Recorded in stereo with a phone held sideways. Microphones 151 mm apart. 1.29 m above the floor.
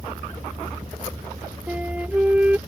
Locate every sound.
1.7 s a flute: 10° right (ahead or behind)